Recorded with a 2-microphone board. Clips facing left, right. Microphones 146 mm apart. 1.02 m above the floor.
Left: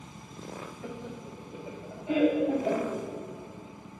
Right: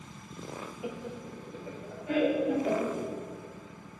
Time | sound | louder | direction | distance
0.8 | laughter | right 3 dB | 10° right (ahead or behind) | 0.7 m